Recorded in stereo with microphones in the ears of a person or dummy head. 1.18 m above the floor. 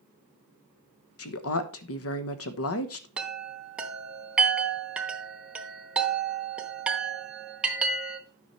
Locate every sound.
1.2 s a woman speaking: 70° left (ahead or behind), 1.1 m
3.2 s a chime: 5° right (ahead or behind), 1.0 m